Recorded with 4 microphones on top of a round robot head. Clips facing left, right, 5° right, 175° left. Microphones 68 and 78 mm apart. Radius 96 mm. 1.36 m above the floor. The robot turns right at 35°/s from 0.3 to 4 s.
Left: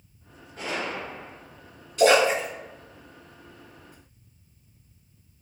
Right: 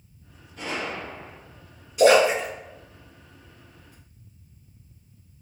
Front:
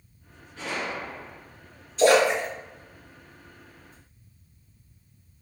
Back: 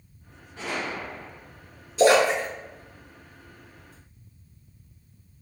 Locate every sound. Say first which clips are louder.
0.6 s a gunshot: even, even; 120° left, 1.0 m; by 1.4 s 150° left, 1.0 m
2.0 s a splash: right 2 dB, back 1 dB; 165° right, 0.8 m; by 3.9 s 95° right, 0.8 m